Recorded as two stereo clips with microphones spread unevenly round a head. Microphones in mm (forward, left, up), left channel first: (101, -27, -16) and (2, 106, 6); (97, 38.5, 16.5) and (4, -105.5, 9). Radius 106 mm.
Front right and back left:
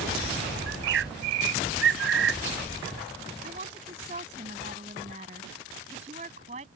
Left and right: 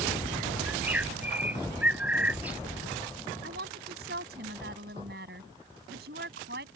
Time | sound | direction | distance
0.7 | a bird | 155° left | ?
3.4 | a woman speaking | 170° right | ?